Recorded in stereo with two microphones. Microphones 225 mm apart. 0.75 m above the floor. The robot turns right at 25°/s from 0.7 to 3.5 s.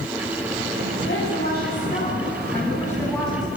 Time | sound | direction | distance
1.1 | a woman speaking | 120° left | 6.5 m